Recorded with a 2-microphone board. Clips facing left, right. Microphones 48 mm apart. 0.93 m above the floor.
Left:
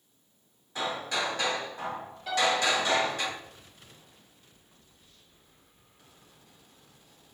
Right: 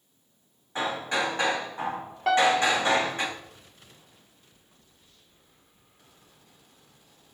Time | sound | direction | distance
0.8 | hammering | 30° right (ahead or behind) | 4 m
2.3 | a piano | 55° right (ahead or behind) | 1.6 m